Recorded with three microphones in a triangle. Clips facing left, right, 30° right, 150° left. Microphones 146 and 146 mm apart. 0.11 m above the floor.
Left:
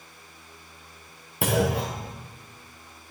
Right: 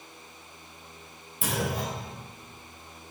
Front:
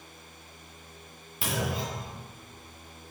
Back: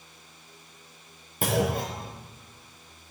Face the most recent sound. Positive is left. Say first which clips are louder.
# left 6 dB, back 6 dB
turn(degrees=110)